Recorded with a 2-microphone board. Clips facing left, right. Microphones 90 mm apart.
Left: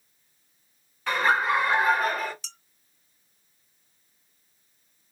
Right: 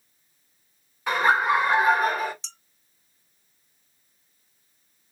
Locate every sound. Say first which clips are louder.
1.1 s laughter: right 2 dB; 15° right (ahead or behind), 1.7 m
2.4 s dishes clattering: even; 20° right (ahead or behind), 2.5 m